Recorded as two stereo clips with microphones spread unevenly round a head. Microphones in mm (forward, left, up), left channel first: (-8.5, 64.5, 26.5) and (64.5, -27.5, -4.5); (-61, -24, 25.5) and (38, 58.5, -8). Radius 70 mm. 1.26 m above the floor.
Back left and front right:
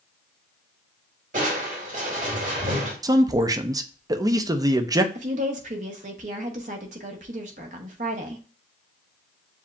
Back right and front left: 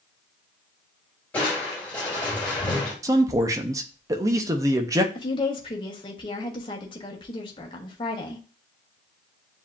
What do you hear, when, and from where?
1.3 s crushing: 60° right, 2.5 m
3.0 s a man speaking: 10° right, 0.6 m
5.2 s a woman speaking: 80° right, 1.0 m